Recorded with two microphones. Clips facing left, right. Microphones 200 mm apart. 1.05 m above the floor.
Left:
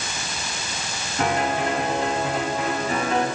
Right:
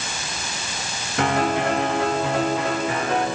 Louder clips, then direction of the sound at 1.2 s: Right 2 dB; 75° right (ahead or behind).